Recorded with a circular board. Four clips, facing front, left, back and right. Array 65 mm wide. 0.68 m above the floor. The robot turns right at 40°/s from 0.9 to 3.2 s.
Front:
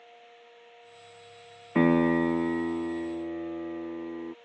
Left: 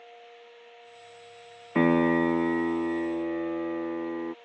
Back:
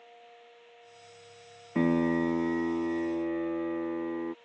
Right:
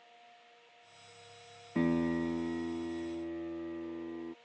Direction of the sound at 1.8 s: 55° left.